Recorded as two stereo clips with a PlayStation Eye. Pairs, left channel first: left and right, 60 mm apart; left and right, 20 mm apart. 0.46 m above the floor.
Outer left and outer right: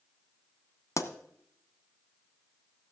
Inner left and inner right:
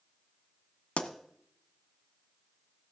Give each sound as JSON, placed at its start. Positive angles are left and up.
{"t": 1.0, "sound": "a pop", "side_deg": 60, "distance_m": 1.1}